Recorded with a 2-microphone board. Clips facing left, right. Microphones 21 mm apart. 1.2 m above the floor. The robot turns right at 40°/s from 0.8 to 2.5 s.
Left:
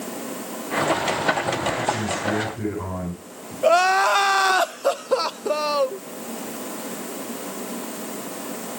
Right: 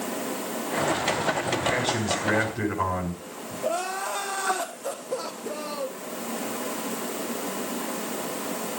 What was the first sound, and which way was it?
A man speaking, 110° right.